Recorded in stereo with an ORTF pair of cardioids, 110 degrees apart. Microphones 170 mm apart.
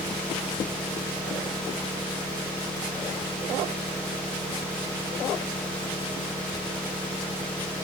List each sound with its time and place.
0.0 s an engine running: 5° left, 1.7 m